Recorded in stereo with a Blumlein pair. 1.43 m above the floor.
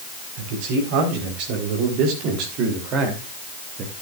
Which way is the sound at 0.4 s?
45° right.